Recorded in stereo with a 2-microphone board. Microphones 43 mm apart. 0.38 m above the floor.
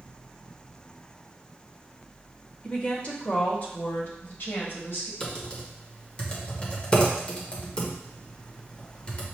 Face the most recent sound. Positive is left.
turn(degrees=25)  # may be behind; listen again after turning